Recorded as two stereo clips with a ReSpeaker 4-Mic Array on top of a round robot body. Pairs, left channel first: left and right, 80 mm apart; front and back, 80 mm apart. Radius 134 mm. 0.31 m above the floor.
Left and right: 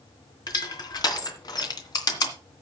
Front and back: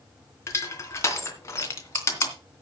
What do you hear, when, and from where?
0.5 s crushing: 55° left, 2.5 m